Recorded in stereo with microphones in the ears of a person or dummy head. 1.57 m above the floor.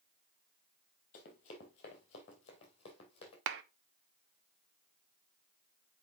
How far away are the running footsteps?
About 1.9 m.